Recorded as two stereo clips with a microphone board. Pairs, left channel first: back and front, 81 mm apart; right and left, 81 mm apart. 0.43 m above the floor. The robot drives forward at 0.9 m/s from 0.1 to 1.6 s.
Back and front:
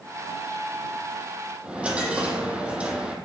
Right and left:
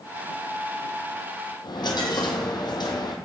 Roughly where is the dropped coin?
Right.